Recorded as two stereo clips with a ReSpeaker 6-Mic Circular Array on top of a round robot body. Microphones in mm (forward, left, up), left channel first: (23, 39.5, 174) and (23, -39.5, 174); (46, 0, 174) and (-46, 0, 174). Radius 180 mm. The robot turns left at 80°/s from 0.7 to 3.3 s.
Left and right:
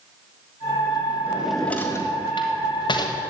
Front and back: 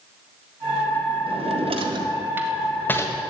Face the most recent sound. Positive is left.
turn(degrees=40)